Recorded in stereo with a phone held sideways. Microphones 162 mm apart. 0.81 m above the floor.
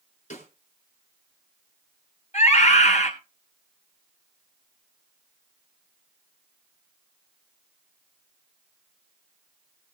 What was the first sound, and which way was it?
A snare drum, 50° left (ahead or behind).